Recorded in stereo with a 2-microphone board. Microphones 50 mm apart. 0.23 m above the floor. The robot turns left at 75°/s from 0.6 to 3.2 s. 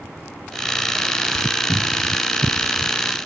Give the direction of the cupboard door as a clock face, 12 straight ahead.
8 o'clock.